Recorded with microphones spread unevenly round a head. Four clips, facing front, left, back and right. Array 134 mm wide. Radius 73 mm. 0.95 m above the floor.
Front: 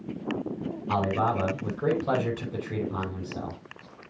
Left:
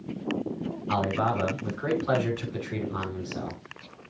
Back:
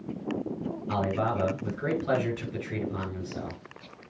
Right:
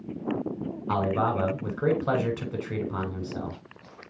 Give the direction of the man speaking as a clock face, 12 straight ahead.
3 o'clock.